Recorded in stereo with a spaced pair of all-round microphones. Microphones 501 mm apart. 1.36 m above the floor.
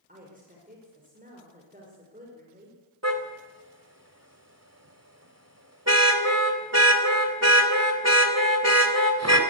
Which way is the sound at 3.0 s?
30° right (ahead or behind).